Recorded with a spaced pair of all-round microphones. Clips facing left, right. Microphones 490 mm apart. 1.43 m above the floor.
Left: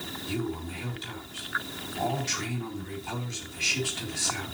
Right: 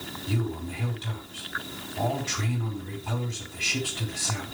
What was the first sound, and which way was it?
A man speaking, 80° right.